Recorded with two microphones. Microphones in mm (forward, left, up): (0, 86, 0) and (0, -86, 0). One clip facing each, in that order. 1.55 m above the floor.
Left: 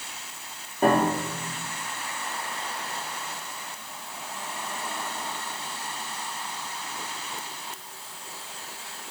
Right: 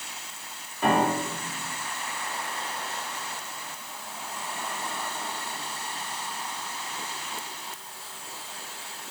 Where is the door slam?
No door slam in this recording.